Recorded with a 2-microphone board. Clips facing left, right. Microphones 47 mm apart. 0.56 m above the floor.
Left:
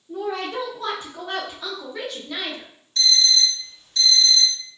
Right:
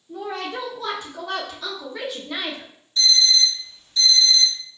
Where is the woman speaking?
45° left (ahead or behind), 1.0 m; by 2.7 s 20° right (ahead or behind), 0.8 m.